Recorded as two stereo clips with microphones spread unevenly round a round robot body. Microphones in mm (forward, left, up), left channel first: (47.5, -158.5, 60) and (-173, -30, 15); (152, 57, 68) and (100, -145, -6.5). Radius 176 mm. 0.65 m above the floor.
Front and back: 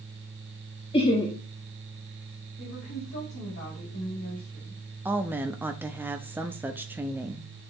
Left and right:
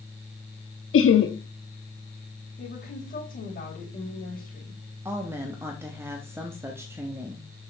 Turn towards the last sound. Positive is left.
turn(degrees=-145)